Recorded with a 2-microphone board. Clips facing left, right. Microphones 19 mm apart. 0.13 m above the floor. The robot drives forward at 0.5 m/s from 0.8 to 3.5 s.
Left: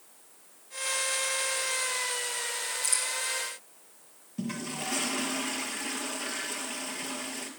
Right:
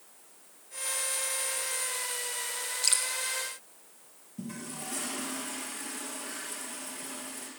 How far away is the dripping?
About 1.8 m.